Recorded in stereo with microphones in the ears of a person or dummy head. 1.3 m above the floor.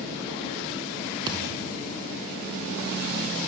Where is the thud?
25° right (ahead or behind), 2.5 m.